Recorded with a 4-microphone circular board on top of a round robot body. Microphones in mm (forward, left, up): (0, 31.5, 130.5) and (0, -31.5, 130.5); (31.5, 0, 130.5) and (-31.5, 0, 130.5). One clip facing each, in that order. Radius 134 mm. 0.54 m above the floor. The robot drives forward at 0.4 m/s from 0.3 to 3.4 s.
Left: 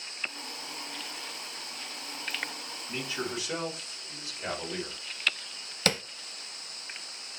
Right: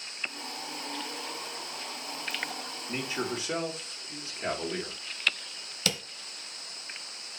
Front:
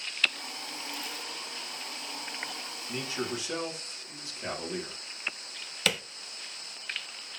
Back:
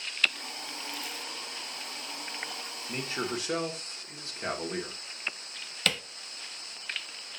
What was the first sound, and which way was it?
A man speaking, 135° right.